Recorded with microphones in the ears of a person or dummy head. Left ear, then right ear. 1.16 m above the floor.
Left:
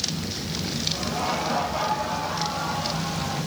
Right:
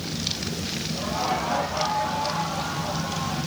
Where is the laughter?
5° right (ahead or behind), 8 m; by 3.4 s 10° right (ahead or behind), 11 m.